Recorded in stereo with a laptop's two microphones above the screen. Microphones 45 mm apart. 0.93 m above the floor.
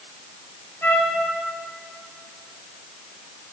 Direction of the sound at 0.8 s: 60° left (ahead or behind).